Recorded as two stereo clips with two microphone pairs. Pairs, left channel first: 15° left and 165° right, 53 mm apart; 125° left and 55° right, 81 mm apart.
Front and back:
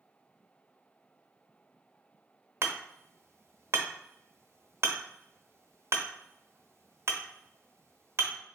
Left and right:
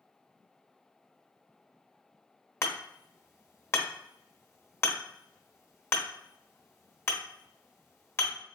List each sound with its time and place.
2.6 s hammering: 175° left, 1.0 m